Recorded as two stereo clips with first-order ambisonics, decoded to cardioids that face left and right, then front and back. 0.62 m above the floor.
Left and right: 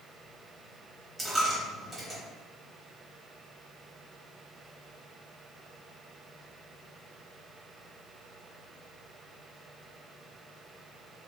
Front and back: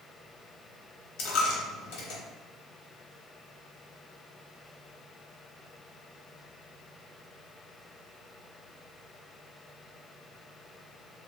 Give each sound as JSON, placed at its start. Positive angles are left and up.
{"t": 1.2, "sound": "a dropped coin", "azimuth_deg": -10, "distance_m": 0.7}